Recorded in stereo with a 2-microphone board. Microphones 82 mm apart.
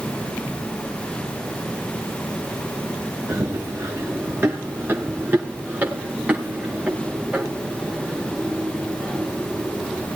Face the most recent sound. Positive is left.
turn(degrees=-10)  # may be behind; listen again after turning